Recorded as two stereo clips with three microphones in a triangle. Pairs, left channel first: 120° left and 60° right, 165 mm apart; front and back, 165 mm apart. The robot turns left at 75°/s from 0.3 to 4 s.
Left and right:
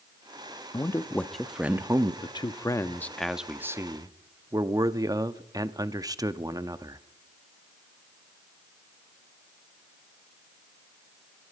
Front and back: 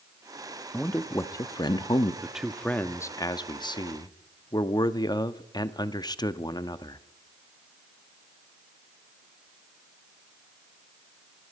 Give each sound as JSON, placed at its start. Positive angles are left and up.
{"t": 0.7, "sound": "a man speaking", "azimuth_deg": 80, "distance_m": 0.6}
{"t": 2.2, "sound": "a man speaking", "azimuth_deg": 110, "distance_m": 0.6}